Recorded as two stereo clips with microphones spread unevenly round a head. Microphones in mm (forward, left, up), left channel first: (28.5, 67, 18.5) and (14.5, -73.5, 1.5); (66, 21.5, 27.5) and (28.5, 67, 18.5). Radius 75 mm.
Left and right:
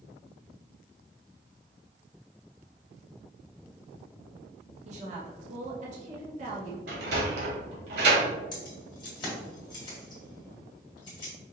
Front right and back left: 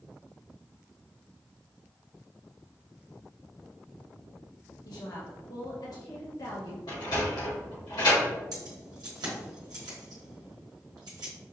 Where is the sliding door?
90° right, 1.8 m.